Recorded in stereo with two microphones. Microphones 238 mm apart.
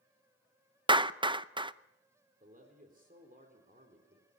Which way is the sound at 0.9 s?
20° right (ahead or behind).